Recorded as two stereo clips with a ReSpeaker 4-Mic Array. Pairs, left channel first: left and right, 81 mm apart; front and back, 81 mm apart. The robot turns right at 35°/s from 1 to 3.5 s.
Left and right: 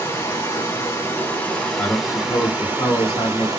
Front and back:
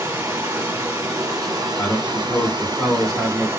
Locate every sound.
0.0 s running water: 145° left, 1.1 m; by 3.6 s 130° right, 1.1 m
1.8 s a man speaking: 45° left, 1.4 m; by 3.5 s 105° left, 1.4 m